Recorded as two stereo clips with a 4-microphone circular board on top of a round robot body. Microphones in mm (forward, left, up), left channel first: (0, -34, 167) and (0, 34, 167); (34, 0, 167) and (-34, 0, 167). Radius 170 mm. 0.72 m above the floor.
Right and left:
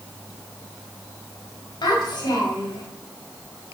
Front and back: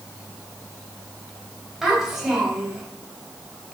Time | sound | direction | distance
1.8 | a child speaking | 95° right | 2.5 m